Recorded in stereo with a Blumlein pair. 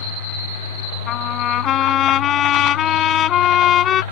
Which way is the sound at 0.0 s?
70° left.